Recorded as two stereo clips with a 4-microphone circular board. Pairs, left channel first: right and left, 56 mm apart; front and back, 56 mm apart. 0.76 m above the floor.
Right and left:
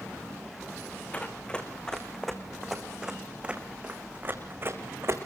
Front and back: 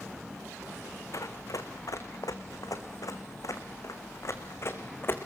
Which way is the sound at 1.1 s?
20° right.